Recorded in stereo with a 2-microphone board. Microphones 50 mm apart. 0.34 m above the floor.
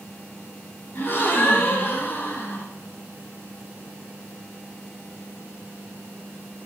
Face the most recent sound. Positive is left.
turn(degrees=50)  # may be behind; listen again after turning